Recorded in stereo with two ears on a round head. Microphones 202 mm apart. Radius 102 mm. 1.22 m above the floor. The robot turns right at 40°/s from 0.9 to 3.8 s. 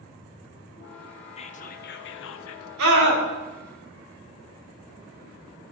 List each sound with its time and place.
1.4 s whispering: 30° left, 0.6 m; by 2.7 s 80° left, 0.6 m
2.8 s a scream: 75° right (ahead or behind), 3.5 m; by 3.2 s 85° right, 3.5 m